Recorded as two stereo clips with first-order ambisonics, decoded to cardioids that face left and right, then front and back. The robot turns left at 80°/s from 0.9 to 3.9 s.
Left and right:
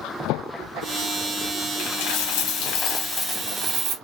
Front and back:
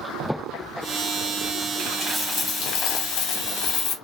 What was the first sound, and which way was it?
A dropped coin, 120° left.